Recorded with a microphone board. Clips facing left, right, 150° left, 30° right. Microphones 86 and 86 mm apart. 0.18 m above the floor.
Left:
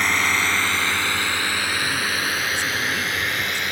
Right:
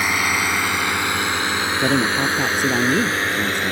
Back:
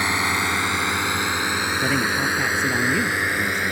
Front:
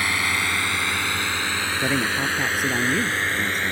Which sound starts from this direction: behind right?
A man speaking, at 1.8 s.